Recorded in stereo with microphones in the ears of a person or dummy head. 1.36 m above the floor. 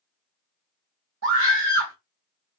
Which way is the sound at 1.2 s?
65° right (ahead or behind).